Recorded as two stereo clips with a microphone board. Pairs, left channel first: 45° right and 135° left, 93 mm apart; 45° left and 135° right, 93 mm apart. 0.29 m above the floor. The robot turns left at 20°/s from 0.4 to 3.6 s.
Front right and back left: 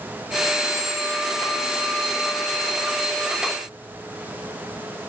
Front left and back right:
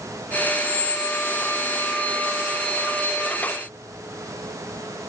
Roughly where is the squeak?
Left.